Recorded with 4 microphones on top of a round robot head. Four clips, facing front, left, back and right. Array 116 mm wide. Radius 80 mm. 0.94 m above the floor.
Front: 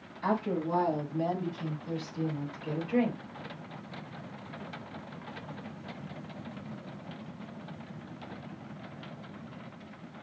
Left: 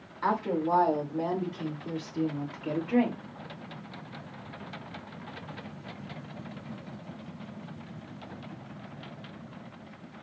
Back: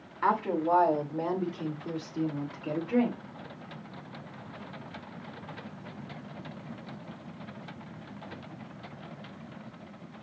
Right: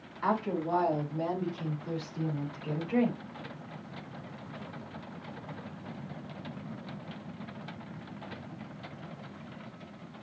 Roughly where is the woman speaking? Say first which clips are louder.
Left 2 dB, back 3 dB; behind.